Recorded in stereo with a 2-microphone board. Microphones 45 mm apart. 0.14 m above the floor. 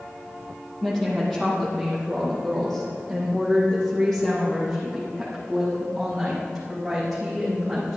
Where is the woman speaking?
5° left (ahead or behind), 4.5 m.